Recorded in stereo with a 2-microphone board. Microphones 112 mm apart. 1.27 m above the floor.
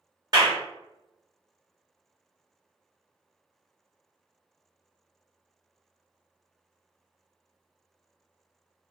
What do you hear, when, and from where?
0.3 s a clap: 40° right (ahead or behind), 0.9 m